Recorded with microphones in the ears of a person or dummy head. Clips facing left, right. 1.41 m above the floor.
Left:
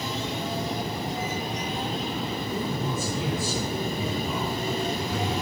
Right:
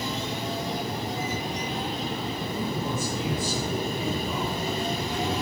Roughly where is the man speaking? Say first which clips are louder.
Even; left.